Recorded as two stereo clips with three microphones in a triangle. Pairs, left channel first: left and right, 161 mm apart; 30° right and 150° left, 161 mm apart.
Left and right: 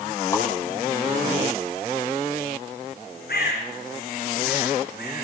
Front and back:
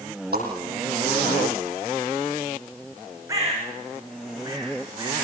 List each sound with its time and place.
0.3 s a whoosh: 160° left, 8 m
3.3 s a bird: 80° left, 9 m